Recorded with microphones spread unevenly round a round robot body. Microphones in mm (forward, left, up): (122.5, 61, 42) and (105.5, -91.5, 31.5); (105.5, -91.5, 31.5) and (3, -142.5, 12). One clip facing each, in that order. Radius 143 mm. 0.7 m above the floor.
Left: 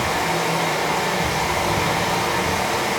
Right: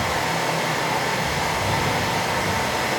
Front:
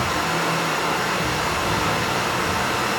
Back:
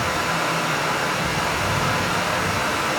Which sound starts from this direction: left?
Running water, at 0.0 s.